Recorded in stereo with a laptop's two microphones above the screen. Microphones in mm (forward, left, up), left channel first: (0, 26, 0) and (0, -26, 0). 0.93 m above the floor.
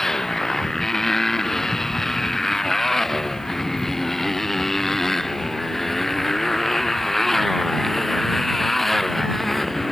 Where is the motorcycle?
10° left (ahead or behind); by 9.9 s 5° left (ahead or behind).